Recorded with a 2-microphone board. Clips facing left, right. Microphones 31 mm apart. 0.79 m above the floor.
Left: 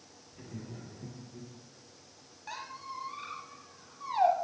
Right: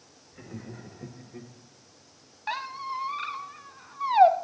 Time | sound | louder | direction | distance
0.3 | laughter | right 3 dB | 35° right (ahead or behind) | 2 m
2.5 | a squeak | right 9 dB | 50° right (ahead or behind) | 0.9 m